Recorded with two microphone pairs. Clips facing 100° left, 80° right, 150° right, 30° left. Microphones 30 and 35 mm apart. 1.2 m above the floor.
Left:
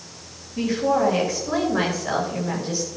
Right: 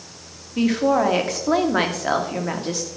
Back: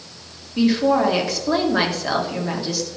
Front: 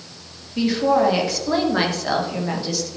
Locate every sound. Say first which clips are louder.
0.6 s a woman speaking: right 2 dB, back 1 dB; 60° right, 1.5 m